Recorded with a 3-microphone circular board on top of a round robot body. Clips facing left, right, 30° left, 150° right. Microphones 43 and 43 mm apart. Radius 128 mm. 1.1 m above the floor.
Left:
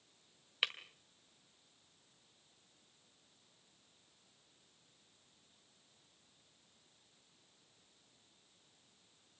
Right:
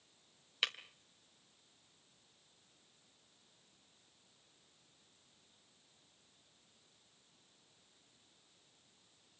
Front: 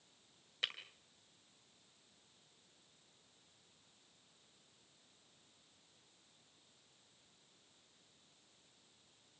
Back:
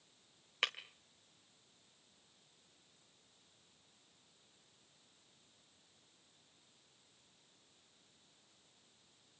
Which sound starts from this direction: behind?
Breaking glass, at 0.6 s.